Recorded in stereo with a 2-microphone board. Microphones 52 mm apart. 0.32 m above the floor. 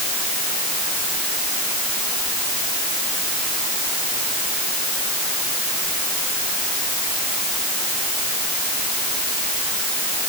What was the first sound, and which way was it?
Only background noise.